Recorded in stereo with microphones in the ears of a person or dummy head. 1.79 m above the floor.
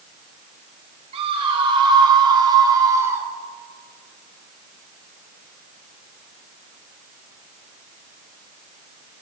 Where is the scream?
35° right (ahead or behind), 5.5 m; by 3.3 s 20° right (ahead or behind), 4 m.